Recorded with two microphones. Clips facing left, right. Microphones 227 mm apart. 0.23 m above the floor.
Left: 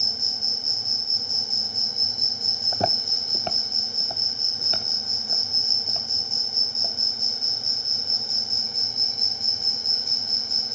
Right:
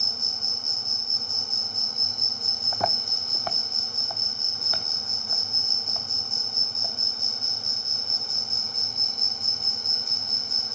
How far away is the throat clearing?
No throat clearing in this recording.